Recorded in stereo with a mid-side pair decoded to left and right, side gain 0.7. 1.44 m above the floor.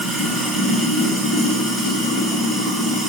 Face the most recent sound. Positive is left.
turn(degrees=-15)